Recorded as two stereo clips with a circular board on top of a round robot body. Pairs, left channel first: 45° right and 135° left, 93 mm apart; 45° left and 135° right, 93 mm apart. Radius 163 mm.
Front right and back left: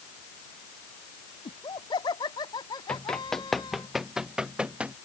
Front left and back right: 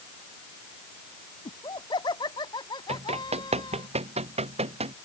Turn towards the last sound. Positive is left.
turn(degrees=-145)